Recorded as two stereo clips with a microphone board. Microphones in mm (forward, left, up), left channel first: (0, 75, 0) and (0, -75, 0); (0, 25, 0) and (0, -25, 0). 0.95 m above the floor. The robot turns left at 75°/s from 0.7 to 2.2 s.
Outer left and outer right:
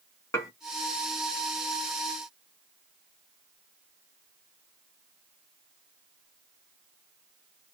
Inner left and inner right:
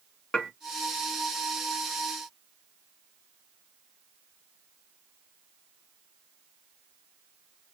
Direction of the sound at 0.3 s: 20° left (ahead or behind).